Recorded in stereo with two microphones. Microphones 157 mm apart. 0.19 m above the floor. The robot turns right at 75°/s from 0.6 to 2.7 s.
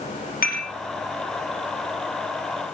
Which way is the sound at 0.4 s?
70° left (ahead or behind).